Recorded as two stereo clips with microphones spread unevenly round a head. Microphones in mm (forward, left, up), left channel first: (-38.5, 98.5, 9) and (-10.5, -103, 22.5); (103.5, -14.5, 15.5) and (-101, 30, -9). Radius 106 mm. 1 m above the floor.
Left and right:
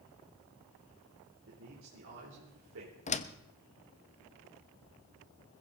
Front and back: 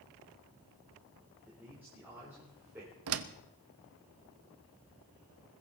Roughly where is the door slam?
Behind left.